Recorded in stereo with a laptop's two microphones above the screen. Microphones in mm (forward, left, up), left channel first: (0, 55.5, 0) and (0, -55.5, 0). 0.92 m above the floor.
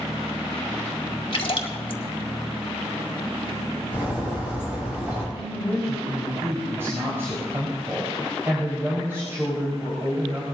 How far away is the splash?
About 2 m.